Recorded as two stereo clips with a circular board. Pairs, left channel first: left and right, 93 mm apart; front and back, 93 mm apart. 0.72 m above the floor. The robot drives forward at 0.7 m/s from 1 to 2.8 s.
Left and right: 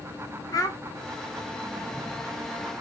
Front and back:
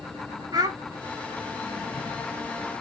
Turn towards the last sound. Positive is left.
turn(degrees=160)